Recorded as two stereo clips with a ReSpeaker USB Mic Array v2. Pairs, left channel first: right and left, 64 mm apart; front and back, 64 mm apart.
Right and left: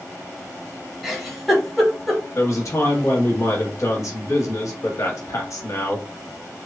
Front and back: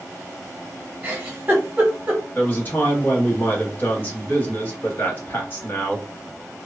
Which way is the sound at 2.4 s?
55° right.